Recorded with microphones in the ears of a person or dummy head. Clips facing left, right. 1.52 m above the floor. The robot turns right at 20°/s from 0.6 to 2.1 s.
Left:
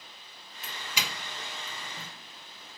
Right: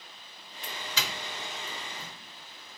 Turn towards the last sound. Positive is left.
turn(degrees=25)  # may be behind; listen again after turning